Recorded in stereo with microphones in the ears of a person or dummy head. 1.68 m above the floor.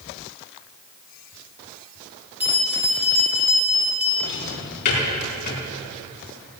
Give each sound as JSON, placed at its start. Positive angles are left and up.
{"t": 2.4, "sound": "a bell", "side_deg": -10, "distance_m": 1.8}
{"t": 4.2, "sound": "a drawer", "side_deg": 55, "distance_m": 5.5}